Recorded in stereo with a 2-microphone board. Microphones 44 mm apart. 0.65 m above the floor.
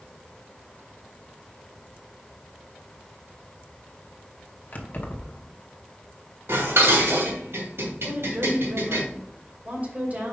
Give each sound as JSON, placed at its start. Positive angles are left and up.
{"t": 4.7, "sound": "keys jangling", "side_deg": 45, "distance_m": 1.0}
{"t": 6.5, "sound": "dishes clattering", "side_deg": -75, "distance_m": 2.5}
{"t": 8.1, "sound": "a woman speaking", "side_deg": -40, "distance_m": 2.5}